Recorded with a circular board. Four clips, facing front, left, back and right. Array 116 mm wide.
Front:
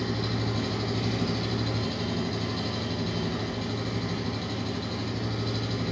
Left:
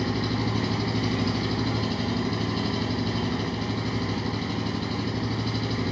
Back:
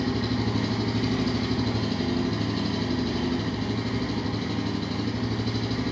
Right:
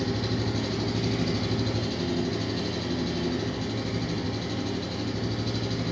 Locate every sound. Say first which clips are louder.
0.0 s an engine running: left 2 dB, back 4 dB; 105° left, 1.0 m